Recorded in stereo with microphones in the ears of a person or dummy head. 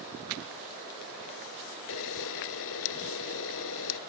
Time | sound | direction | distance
1.9 | a camera shutter | 65° left (ahead or behind) | ?